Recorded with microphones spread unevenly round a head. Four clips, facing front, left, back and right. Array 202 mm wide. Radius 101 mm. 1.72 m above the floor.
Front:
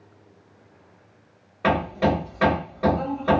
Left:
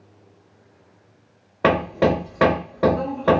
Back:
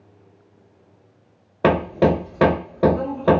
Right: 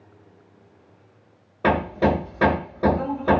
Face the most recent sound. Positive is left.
turn(degrees=155)